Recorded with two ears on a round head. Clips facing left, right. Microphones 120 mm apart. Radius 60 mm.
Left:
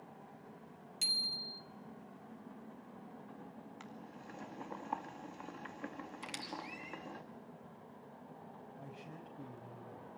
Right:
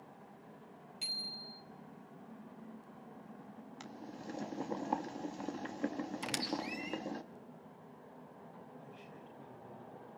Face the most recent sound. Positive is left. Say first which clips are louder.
# left 2 dB
turn(degrees=50)  # may be behind; listen again after turning